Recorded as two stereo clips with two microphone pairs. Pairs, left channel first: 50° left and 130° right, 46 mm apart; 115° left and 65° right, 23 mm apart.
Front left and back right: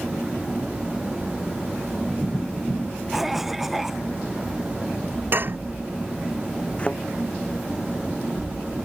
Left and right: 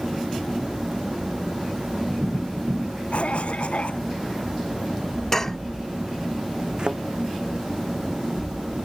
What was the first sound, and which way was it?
A cough, 145° left.